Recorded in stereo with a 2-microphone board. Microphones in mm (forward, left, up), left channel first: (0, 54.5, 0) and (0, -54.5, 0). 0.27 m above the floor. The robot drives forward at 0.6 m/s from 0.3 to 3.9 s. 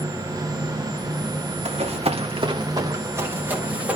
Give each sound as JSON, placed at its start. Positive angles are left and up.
{"t": 1.6, "sound": "running footsteps", "side_deg": -85, "distance_m": 1.9}